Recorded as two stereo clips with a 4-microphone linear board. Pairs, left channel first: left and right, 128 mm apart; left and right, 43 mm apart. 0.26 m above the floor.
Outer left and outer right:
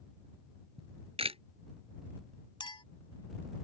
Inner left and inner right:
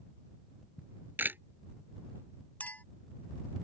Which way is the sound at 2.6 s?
40° left (ahead or behind).